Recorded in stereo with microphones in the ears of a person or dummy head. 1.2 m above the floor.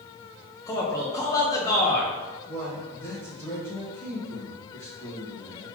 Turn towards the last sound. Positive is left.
turn(degrees=10)  # may be behind; listen again after turning